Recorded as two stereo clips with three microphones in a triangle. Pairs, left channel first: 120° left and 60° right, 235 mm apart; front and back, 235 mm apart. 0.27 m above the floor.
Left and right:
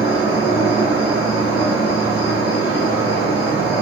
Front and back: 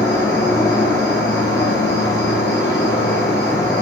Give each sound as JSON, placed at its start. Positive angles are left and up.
{"t": 0.0, "sound": "an insect", "azimuth_deg": 75, "distance_m": 4.0}